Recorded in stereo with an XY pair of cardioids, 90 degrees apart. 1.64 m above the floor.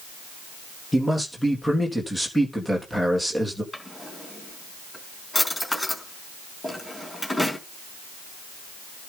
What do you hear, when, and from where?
0.9 s a man speaking: 5° left, 3.5 m
3.7 s a drawer: 15° left, 4.5 m